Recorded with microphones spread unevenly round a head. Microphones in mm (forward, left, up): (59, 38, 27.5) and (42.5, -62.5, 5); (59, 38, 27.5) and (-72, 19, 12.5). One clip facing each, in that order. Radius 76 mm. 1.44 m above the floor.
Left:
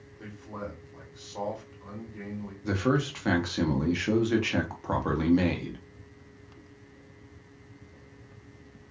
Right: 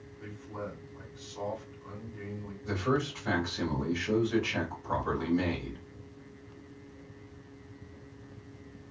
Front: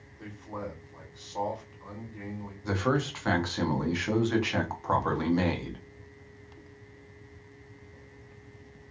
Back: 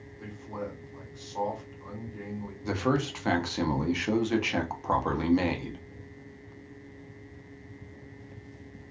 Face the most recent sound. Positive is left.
turn(degrees=115)